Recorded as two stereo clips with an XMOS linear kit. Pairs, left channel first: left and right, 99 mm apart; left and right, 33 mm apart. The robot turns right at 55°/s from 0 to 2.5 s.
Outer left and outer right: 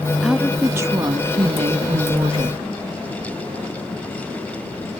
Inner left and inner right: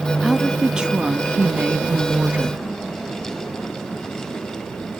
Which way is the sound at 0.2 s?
Straight behind.